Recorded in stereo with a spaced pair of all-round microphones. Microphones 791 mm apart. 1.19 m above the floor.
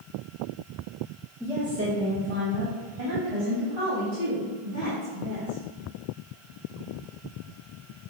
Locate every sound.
1.4 s a woman speaking: centre (ahead or behind), 1.5 m; by 5.6 s 70° right (ahead or behind), 5.5 m